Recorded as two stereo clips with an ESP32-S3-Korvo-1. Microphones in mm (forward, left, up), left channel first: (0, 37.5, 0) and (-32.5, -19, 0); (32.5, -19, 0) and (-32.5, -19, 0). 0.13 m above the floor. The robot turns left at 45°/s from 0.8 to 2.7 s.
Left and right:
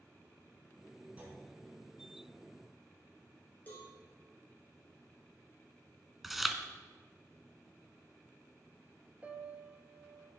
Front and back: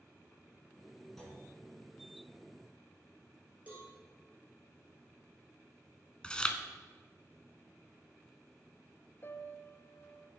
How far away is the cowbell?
About 1.6 m.